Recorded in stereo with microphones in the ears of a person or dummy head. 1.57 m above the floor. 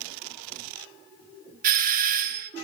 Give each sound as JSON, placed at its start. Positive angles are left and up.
{"t": 1.6, "sound": "a doorbell", "side_deg": -45, "distance_m": 0.7}